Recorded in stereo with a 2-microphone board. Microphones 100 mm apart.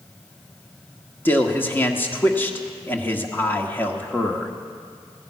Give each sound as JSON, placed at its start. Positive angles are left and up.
{"t": 1.2, "sound": "a man speaking", "side_deg": 20, "distance_m": 1.0}